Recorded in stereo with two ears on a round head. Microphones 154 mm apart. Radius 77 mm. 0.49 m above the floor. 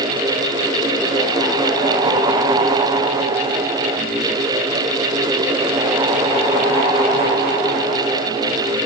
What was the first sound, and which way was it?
Only background noise.